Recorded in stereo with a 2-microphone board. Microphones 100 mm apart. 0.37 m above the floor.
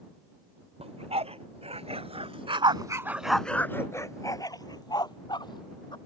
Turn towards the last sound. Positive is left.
turn(degrees=50)  # may be behind; listen again after turning